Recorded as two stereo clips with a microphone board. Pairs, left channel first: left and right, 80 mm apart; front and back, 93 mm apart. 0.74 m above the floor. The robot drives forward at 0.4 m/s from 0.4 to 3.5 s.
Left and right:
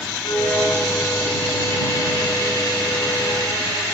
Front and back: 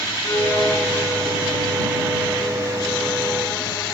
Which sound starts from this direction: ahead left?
A violin, at 0.2 s.